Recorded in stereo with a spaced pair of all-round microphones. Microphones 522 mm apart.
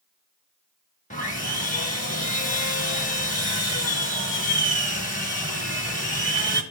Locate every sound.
1.1 s sawing: 15° left (ahead or behind), 1.5 m